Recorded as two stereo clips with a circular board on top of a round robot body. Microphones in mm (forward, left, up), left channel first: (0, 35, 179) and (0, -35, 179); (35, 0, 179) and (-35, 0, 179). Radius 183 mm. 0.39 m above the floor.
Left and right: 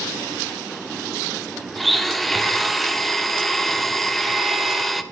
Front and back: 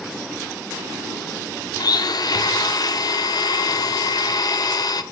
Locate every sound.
1.8 s a blender: straight ahead, 0.7 m